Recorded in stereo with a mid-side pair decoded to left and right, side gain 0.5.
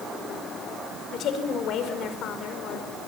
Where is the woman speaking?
65° left, 5.5 m.